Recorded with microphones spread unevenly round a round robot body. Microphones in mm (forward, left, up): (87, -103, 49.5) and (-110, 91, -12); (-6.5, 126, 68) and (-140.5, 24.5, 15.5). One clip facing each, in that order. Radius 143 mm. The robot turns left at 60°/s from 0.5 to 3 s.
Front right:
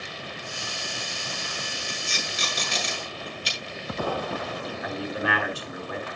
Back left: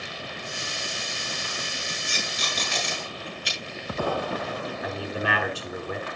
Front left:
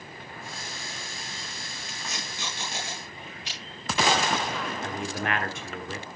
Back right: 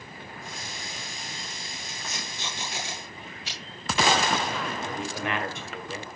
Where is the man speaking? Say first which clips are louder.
Front right 2 dB, even; 75° left, 6 m.